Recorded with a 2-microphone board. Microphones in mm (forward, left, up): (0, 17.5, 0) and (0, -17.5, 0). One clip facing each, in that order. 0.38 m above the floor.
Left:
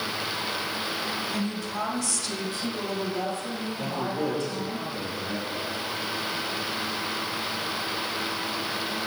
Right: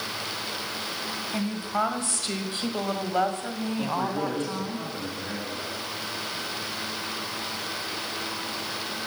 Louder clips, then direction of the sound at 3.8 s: Right 1 dB; 25° right (ahead or behind).